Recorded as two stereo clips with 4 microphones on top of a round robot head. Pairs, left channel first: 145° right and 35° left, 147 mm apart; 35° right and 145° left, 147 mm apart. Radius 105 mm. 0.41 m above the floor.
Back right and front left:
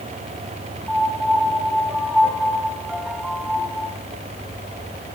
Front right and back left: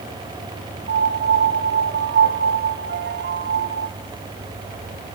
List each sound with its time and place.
0.9 s a piano: 120° left, 0.9 m